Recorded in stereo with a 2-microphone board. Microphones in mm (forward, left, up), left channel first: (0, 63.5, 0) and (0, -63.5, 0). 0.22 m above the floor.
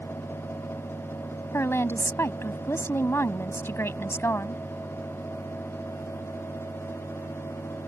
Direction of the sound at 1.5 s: 20° left (ahead or behind).